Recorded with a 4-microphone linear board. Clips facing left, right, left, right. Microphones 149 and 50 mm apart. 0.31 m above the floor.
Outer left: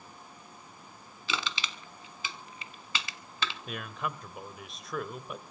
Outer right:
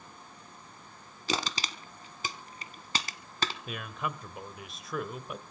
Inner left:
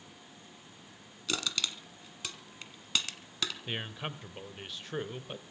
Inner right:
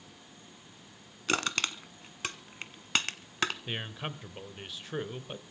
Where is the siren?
I don't hear a siren.